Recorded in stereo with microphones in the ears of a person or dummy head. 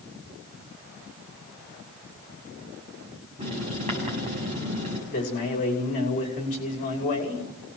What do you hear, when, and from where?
3.4 s writing: 30° right (ahead or behind), 7 m
5.1 s a man speaking: 35° left (ahead or behind), 5.5 m